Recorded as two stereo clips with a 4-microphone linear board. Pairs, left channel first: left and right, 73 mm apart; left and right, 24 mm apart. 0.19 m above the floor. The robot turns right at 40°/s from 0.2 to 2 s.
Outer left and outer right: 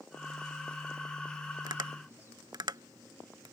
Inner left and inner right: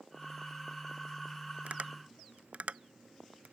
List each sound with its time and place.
1.7 s tapping: 70° right (ahead or behind); by 3.5 s 75° right (ahead or behind)